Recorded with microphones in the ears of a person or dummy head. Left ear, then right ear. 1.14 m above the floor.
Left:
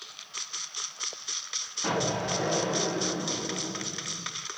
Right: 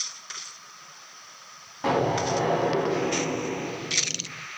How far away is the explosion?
About 4 m.